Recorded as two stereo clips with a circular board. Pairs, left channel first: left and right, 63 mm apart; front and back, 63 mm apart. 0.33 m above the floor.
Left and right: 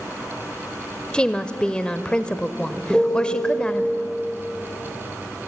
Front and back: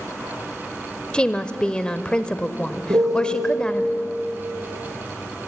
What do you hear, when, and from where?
1.1 s a woman speaking: 45° left, 0.9 m
2.9 s a piano: 170° left, 5.5 m